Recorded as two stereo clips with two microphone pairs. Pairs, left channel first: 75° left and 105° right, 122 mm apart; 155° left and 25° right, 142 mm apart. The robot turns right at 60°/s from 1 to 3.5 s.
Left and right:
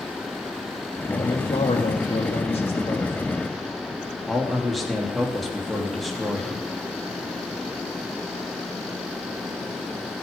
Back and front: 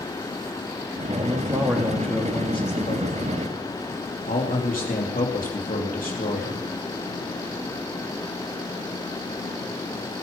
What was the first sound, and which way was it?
A man speaking, 15° left.